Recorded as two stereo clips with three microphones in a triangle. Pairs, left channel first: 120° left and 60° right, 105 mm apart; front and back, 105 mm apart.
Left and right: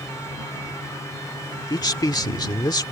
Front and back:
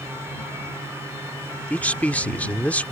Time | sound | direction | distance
1.7 | a man speaking | 75° left | ?